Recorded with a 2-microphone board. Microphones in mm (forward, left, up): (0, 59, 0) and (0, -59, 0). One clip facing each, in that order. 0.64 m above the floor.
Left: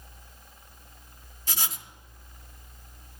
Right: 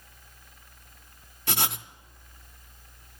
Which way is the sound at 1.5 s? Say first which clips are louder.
Right 6 dB; 65° right (ahead or behind).